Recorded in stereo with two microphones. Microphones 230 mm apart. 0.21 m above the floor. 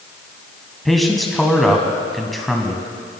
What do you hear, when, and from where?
0.8 s a man speaking: centre (ahead or behind), 1.2 m